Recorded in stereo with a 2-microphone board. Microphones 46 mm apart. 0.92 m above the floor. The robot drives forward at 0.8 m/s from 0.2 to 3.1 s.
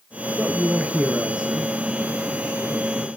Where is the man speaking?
20° right (ahead or behind), 0.6 m; by 3.1 s 5° right (ahead or behind), 1.9 m.